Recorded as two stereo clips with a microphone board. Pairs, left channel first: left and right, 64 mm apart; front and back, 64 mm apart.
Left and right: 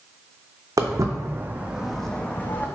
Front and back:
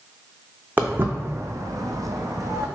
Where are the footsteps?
115° right, 0.7 m; by 2.7 s 145° left, 0.7 m.